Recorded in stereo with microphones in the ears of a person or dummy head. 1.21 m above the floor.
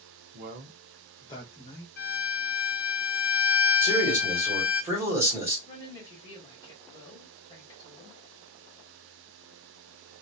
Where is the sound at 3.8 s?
15° right (ahead or behind), 1.6 m.